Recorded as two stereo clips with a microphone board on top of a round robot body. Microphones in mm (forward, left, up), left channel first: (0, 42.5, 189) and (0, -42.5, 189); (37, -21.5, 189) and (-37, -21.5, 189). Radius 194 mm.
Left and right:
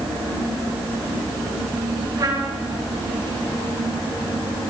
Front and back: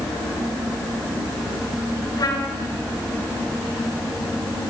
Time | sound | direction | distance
2.2 | a trumpet | 45° right | 5 m